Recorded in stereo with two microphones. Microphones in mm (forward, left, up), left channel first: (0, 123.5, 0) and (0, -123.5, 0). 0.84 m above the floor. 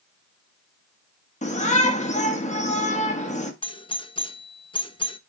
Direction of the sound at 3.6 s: 20° left (ahead or behind).